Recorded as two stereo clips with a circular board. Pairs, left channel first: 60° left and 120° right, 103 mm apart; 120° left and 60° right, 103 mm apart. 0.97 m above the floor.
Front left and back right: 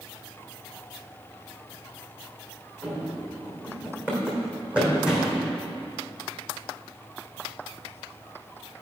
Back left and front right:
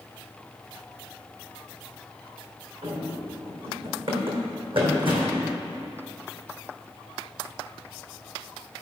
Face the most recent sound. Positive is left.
turn(degrees=-35)